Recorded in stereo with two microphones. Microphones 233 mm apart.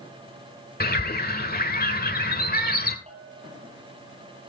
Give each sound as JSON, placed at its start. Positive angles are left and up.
{"t": 0.8, "sound": "a bird", "side_deg": 40, "distance_m": 1.3}
{"t": 3.1, "sound": "a bell", "side_deg": -30, "distance_m": 3.5}